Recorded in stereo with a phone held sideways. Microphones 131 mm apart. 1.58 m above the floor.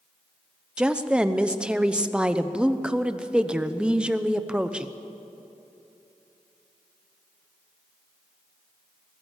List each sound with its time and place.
0.8 s a woman speaking: 5° right (ahead or behind), 0.9 m